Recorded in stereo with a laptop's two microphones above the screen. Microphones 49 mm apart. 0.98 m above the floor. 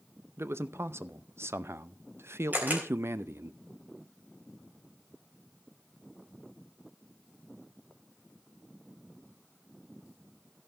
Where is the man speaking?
70° right (ahead or behind), 0.6 m.